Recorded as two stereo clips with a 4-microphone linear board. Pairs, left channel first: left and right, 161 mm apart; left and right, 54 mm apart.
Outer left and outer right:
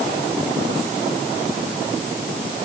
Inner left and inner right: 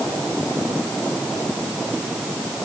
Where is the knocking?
I don't hear knocking.